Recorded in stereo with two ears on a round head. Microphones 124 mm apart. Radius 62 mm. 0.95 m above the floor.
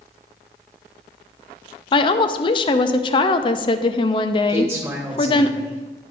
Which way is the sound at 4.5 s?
20° right (ahead or behind).